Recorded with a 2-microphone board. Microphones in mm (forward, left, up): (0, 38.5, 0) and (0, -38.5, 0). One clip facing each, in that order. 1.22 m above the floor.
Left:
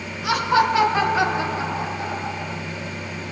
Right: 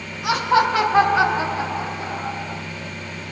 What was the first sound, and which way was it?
Laughter, 45° right (ahead or behind).